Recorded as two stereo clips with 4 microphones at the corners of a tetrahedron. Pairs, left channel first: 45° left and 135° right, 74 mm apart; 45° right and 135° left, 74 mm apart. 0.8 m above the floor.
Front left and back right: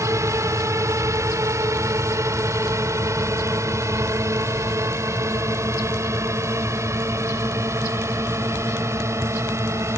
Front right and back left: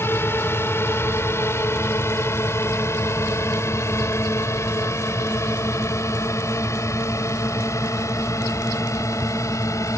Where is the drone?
95° right; by 10.0 s 85° right.